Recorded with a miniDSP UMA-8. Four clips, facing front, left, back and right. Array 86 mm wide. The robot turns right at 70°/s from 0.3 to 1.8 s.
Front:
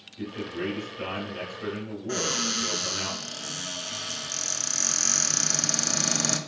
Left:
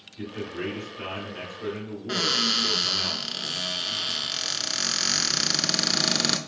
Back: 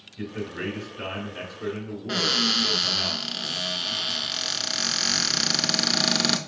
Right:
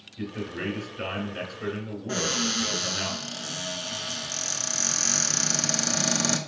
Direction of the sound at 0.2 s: 170° right.